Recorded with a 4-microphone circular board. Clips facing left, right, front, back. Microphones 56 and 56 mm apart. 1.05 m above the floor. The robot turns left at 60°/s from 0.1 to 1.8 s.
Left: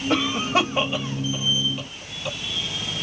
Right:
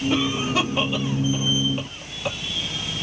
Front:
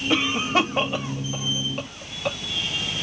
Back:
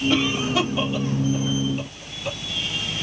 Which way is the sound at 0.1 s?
70° left.